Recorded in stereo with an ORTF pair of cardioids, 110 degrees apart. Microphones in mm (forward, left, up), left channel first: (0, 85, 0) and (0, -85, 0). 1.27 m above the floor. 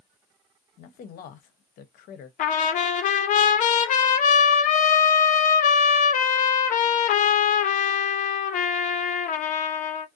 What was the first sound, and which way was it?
A man speaking, 65° left.